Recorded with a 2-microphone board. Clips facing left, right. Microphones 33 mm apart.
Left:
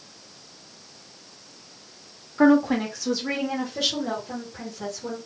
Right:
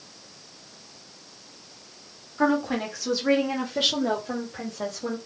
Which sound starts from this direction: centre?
A woman speaking, at 2.4 s.